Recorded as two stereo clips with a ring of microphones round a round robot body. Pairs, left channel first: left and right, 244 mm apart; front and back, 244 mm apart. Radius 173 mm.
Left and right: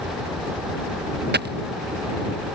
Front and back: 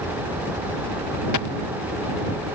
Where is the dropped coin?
40° right.